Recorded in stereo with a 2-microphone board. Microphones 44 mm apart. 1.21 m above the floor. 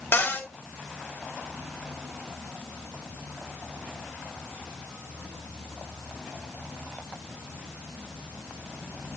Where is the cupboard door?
50° left (ahead or behind), 1.5 m.